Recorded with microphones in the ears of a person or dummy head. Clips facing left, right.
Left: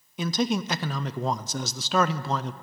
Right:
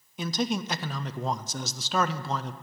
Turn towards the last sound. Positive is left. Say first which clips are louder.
# left 3 dB
turn(degrees=60)  # may be behind; listen again after turning